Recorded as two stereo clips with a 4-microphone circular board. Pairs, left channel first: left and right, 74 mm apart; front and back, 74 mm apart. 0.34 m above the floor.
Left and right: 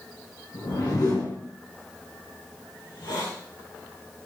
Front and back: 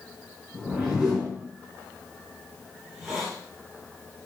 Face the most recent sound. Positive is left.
turn(degrees=100)